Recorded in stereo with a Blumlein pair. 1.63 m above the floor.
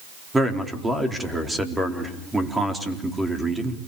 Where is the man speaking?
5° right, 4 m.